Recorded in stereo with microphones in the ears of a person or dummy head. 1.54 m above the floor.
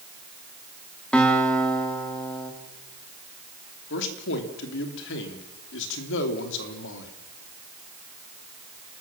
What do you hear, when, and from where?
1.1 s a guitar: 5° left (ahead or behind), 2.5 m
3.9 s a man speaking: 75° left (ahead or behind), 3 m